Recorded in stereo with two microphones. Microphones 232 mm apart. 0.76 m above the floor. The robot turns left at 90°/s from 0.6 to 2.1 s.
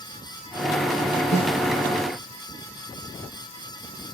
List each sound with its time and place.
1.3 s a snare drum: 50° left (ahead or behind), 9 m; by 1.5 s 35° left (ahead or behind), 9 m